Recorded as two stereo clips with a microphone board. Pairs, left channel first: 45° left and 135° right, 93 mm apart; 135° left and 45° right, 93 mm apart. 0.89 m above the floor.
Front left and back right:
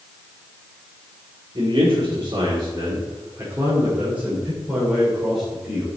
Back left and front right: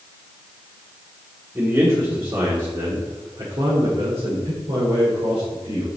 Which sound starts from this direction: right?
A man speaking, at 1.6 s.